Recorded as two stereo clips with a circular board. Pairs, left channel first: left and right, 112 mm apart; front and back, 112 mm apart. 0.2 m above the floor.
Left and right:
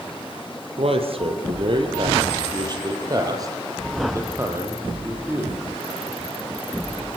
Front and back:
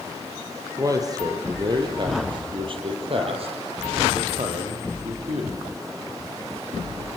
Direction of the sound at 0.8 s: 120° right.